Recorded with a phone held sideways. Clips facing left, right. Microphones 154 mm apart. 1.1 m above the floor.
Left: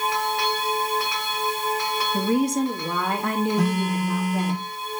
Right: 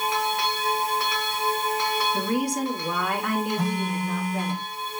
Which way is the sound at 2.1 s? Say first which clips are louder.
Left 4 dB; 25° left (ahead or behind).